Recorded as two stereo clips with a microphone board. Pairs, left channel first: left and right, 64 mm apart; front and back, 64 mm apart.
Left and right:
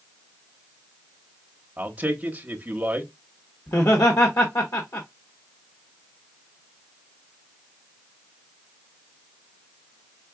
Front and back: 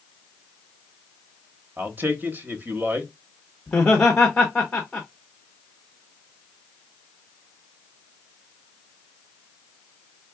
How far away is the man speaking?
About 0.9 m.